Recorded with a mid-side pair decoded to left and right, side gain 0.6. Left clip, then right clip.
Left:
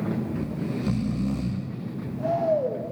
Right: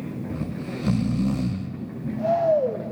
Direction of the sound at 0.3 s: 25° right.